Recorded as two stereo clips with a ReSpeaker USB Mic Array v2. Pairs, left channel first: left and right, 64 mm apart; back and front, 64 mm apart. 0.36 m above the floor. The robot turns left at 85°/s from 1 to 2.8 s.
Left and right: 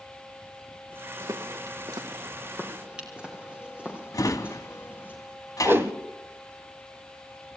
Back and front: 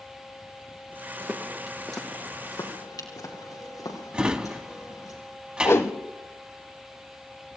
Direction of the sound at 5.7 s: 140° right.